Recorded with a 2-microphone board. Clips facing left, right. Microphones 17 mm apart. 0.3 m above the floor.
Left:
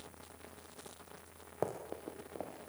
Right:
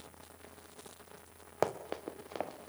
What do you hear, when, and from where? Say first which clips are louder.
1.6 s running footsteps: right 5 dB; 65° right (ahead or behind), 1.9 m; by 2.7 s 75° right (ahead or behind), 2.5 m